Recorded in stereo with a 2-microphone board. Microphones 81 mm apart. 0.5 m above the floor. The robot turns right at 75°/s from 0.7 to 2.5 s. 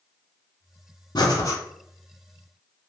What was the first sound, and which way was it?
Breathing, 110° left.